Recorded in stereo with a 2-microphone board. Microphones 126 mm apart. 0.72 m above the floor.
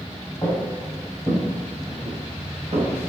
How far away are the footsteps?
About 1.2 m.